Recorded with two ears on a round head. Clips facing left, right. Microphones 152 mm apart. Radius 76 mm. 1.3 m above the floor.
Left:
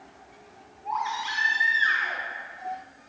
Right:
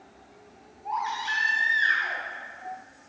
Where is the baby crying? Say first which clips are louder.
Left 1 dB; 20° right (ahead or behind), 3 m.